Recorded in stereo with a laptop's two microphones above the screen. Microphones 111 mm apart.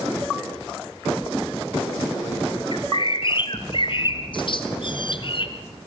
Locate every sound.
2.7 s a bird: 50° left (ahead or behind), 2 m